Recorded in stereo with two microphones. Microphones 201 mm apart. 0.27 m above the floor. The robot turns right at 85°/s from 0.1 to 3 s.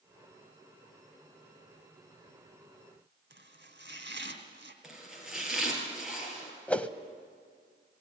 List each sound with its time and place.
3.3 s chopping: 65° right (ahead or behind), 1.9 m
4.8 s chopping: centre (ahead or behind), 4 m
6.7 s a whoosh: 5° left (ahead or behind), 0.7 m